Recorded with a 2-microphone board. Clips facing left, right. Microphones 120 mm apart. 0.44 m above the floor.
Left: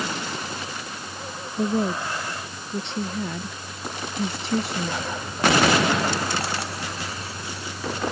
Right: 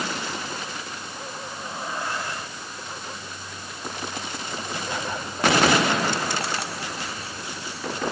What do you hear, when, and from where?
1.6 s a woman speaking: 80° left; by 5.1 s 85° left